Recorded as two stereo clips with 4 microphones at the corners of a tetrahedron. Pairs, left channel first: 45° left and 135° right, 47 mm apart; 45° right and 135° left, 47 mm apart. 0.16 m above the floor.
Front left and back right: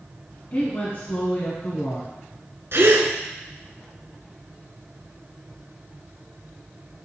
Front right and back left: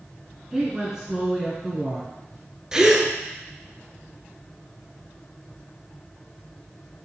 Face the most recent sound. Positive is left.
turn(degrees=-150)